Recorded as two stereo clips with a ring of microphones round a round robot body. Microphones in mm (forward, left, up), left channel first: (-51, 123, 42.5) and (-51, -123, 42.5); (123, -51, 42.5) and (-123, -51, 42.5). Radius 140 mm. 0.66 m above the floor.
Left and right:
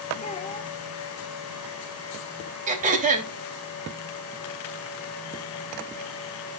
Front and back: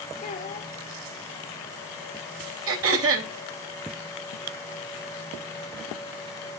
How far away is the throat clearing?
About 3 m.